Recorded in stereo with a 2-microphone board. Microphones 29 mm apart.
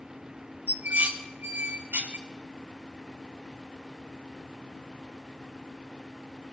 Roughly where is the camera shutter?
No camera shutter in this recording.